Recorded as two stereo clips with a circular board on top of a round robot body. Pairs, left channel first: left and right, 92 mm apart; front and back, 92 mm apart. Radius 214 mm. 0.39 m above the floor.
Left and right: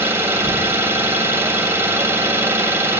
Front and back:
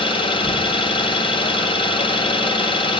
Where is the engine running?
25° right, 1.7 m.